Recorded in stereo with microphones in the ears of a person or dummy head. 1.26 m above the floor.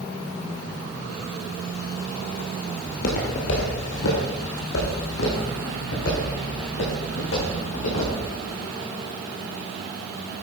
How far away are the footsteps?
About 2.0 m.